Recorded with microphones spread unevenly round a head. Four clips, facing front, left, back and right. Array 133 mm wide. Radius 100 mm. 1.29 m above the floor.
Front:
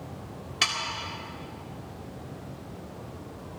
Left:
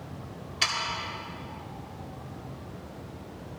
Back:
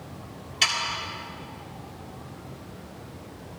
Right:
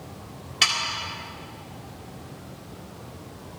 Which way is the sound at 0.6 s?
30° right.